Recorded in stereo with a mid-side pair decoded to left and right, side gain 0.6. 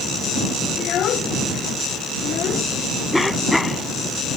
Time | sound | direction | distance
0.8 | a child speaking | 50° left | ?
3.1 | a cough | 5° left | ?